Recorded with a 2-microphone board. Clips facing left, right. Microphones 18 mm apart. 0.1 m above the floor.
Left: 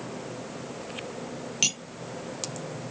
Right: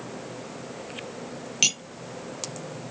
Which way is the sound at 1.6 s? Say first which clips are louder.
Right 3 dB; 15° right (ahead or behind).